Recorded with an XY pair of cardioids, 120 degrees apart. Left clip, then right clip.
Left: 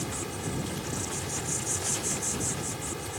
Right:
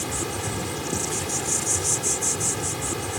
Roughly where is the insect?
Ahead right.